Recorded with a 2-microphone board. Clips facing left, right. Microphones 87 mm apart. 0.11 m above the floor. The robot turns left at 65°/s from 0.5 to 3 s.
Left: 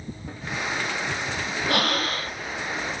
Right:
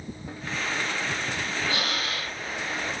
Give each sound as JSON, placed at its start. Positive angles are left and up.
{"t": 1.7, "sound": "breathing", "azimuth_deg": 70, "distance_m": 1.3}